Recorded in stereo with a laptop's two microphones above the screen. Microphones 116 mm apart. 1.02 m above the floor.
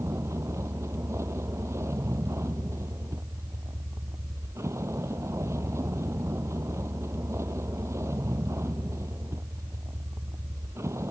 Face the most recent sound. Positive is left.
turn(degrees=-25)  # may be behind; listen again after turning